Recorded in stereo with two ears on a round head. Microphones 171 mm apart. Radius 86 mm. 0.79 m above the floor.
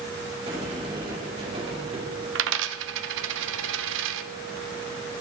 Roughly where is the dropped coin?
Right.